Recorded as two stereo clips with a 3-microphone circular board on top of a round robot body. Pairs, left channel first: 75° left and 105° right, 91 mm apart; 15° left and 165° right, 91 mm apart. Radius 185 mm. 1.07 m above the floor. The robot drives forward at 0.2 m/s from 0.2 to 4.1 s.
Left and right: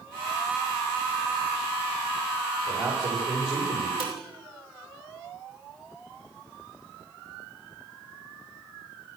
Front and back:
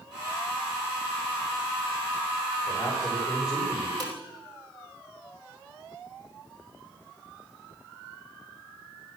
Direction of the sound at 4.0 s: 120° right.